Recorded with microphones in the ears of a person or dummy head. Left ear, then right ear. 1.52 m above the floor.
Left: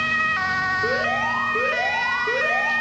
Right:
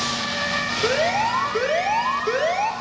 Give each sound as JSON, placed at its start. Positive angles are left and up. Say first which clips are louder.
{"t": 0.8, "sound": "an alarm", "louder": "right 1 dB", "side_deg": -55, "distance_m": 1.1}